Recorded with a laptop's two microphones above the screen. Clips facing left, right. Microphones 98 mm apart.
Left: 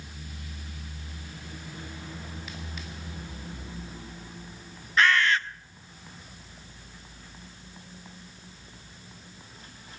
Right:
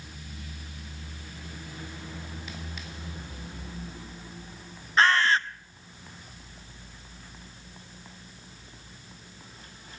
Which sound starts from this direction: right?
A bird, at 5.0 s.